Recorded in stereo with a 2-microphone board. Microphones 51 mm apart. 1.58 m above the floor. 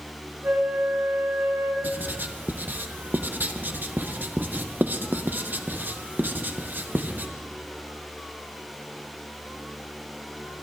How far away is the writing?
About 0.9 m.